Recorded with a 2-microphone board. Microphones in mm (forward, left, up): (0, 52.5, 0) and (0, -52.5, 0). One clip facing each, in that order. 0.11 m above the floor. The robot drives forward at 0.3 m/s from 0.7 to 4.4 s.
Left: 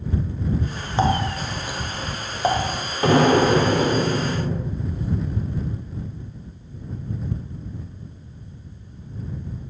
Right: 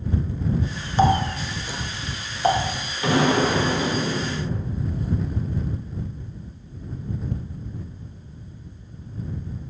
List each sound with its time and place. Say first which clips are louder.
1.0 s a running tap: right 2 dB; 20° left (ahead or behind), 0.8 m; by 2.7 s 15° left (ahead or behind), 1.0 m
3.0 s an explosion: left 4 dB; 45° left (ahead or behind), 1.0 m; by 4.8 s 60° left (ahead or behind), 0.8 m